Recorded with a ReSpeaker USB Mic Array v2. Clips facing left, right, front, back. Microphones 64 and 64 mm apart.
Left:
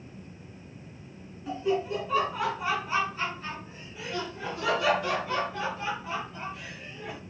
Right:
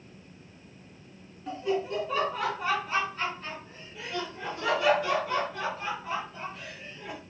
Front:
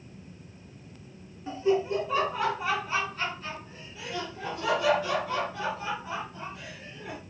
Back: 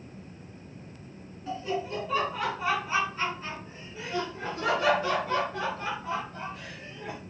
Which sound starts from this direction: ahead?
Laughter, at 1.5 s.